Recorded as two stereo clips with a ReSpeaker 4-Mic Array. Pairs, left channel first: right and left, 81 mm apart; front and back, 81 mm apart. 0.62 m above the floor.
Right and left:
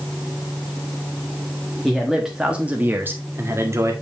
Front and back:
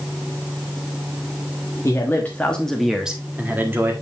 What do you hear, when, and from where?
1.8 s a man speaking: 5° right, 1.3 m; by 3.9 s 130° left, 1.7 m